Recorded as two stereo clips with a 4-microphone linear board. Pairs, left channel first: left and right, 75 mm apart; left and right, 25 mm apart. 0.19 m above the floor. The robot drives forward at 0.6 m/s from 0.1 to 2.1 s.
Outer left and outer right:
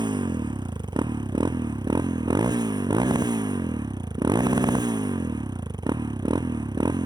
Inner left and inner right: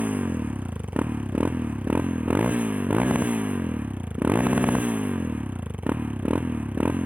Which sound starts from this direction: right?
A motorcycle, at 0.0 s.